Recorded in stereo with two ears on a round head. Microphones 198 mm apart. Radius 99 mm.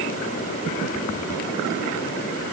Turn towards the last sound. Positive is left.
No sound to turn to.